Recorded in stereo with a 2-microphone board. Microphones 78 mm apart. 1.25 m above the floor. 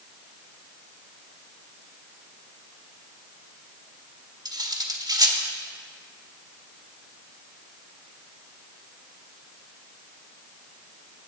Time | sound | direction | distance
4.5 | cutlery clinking | 65° right (ahead or behind) | 1.6 m